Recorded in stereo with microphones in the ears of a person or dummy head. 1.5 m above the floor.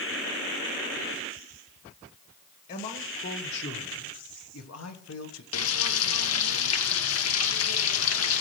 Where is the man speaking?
50° left (ahead or behind), 2 m; by 5.4 s 70° left (ahead or behind), 1.4 m.